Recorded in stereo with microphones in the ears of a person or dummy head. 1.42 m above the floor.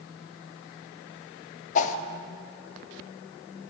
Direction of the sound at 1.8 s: 40° left (ahead or behind).